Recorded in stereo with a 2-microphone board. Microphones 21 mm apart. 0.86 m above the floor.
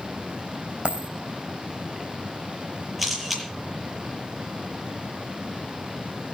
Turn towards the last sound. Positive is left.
turn(degrees=0)  # may be behind; listen again after turning